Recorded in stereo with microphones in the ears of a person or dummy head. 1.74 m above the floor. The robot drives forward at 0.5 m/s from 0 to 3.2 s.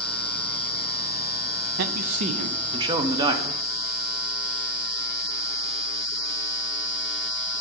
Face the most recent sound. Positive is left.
turn(degrees=-20)  # may be behind; listen again after turning